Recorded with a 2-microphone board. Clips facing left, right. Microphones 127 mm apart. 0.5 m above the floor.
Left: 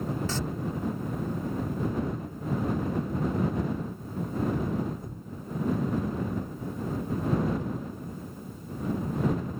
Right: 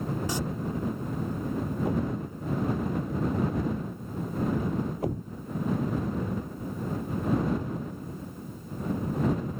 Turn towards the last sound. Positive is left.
turn(degrees=-80)